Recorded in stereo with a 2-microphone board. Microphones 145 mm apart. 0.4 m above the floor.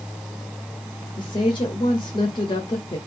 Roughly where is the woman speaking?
Left.